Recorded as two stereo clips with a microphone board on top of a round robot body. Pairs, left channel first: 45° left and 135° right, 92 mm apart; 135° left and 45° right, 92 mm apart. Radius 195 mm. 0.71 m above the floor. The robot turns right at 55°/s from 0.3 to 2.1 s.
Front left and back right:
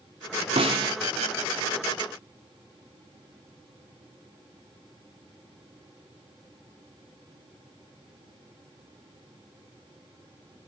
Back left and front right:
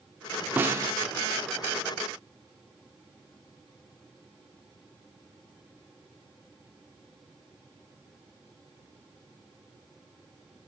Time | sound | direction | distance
0.6 | a snare drum | 120° right | 1.1 m